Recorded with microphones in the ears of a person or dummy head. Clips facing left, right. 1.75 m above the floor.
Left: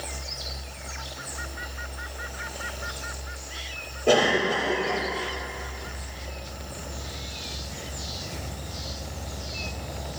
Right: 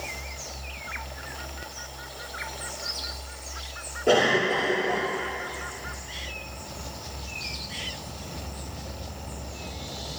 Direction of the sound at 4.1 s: 10° right (ahead or behind).